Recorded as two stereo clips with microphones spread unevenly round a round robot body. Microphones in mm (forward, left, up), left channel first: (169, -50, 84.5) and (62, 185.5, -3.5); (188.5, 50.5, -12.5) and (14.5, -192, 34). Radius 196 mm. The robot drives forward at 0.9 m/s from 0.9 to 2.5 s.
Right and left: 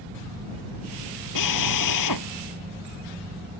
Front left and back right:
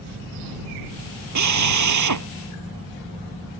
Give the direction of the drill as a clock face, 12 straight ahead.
3 o'clock.